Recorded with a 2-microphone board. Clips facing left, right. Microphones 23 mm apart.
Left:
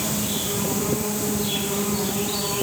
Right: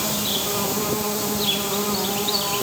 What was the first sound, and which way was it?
An insect, 55° right (ahead or behind).